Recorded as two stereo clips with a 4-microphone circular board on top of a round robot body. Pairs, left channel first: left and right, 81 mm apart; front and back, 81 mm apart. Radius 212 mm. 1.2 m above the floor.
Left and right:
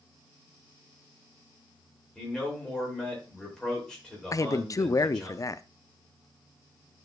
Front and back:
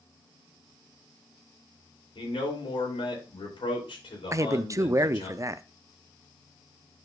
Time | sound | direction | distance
2.1 | a man speaking | 5° left | 3 m
4.3 | a man speaking | 130° left | 0.7 m